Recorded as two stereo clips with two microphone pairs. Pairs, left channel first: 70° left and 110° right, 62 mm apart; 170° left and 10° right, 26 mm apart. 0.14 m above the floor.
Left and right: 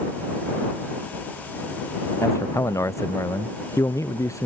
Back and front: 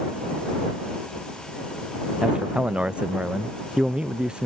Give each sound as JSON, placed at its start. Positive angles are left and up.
{"t": 2.2, "sound": "a man speaking", "azimuth_deg": 35}